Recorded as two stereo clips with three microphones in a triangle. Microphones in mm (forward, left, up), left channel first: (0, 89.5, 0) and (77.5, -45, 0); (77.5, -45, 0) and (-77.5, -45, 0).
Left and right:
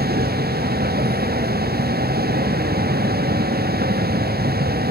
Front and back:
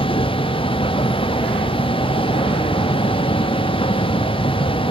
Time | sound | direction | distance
0.0 | a vehicle | 55° right | ?